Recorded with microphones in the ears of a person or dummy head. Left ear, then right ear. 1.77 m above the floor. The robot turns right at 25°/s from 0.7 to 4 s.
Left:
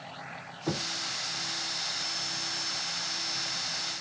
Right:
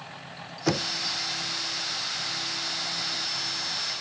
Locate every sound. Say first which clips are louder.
0.7 s knocking: right 6 dB; 80° right; by 0.9 s 75° right (ahead or behind)